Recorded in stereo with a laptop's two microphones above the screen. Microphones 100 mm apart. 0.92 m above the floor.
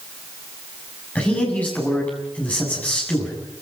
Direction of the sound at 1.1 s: 15° left (ahead or behind).